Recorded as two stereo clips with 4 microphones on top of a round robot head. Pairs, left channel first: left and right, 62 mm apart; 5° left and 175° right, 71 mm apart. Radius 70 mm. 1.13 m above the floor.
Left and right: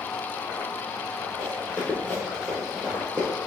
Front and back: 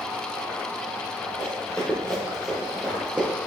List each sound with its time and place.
1.4 s running footsteps: 45° left, 1.7 m; by 3.3 s 120° right, 1.2 m